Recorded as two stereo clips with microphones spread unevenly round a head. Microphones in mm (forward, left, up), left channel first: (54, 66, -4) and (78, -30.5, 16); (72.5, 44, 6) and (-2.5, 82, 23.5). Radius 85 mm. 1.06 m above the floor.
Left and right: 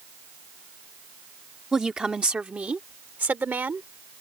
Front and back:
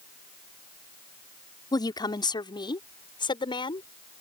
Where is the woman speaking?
10° left; by 3.9 s 5° right.